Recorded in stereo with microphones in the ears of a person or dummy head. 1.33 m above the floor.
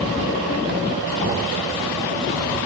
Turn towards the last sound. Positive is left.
turn(degrees=30)  # may be behind; listen again after turning